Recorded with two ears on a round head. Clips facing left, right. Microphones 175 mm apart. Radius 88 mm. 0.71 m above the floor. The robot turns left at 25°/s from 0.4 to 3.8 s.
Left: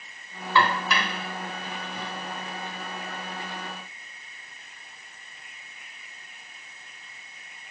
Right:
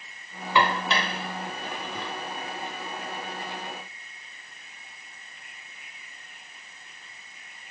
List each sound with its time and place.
0.6 s dishes clattering: 15° right (ahead or behind), 2 m; by 2.1 s 55° right (ahead or behind), 2 m